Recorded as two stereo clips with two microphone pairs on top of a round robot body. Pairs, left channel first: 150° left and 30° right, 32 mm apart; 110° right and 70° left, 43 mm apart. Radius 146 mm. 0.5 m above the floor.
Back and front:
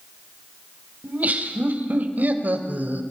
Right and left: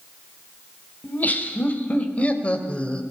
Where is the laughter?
60° right, 4 m; by 3.0 s 45° right, 3 m.